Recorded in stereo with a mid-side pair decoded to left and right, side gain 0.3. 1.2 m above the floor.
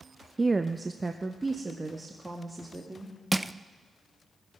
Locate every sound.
0.4 s a woman speaking: 30° right, 0.5 m
3.3 s crushing: 10° right, 0.6 m